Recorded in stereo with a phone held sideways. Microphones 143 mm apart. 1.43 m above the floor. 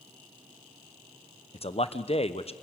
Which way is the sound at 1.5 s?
45° left (ahead or behind).